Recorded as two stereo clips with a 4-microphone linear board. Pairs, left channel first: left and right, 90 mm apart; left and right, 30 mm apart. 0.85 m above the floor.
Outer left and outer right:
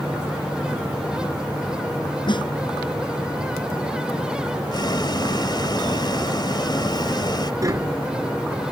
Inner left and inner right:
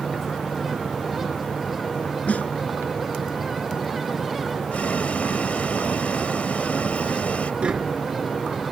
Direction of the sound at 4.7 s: 55° left (ahead or behind).